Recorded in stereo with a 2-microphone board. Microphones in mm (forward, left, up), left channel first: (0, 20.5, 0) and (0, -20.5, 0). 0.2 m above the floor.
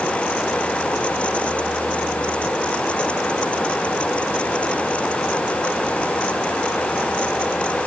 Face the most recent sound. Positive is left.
No sound to turn to.